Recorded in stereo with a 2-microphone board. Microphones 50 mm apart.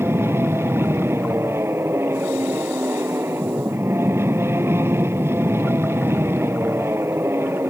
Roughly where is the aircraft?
Right.